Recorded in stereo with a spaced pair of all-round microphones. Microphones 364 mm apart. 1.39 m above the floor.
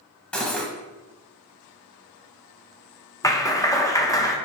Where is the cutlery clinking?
5° left (ahead or behind), 0.8 m.